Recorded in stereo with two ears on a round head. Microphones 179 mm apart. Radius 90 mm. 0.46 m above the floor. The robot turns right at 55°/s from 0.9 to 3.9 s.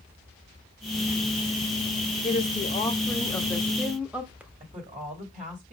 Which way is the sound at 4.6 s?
35° right (ahead or behind).